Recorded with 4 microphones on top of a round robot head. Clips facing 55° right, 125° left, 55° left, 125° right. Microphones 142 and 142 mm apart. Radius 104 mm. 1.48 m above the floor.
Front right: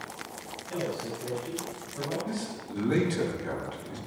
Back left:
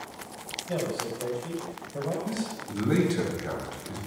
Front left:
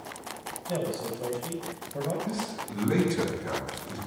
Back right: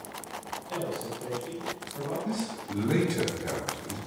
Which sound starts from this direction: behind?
A man speaking, at 2.2 s.